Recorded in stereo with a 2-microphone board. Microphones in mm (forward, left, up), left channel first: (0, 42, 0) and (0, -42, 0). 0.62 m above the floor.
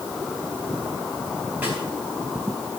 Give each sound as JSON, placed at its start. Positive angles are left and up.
{"t": 1.6, "sound": "a snare drum", "side_deg": -20, "distance_m": 6.0}